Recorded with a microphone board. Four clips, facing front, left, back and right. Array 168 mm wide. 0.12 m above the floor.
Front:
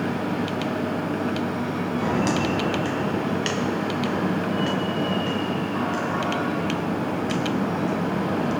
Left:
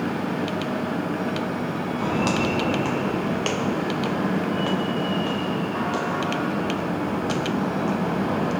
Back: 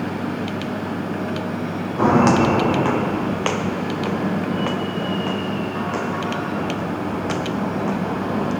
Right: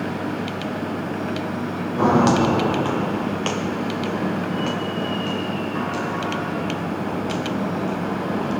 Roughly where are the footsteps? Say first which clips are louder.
Right 8 dB, back 10 dB; behind right.